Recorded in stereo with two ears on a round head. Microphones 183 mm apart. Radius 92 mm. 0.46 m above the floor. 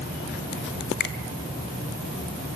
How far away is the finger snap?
About 2 m.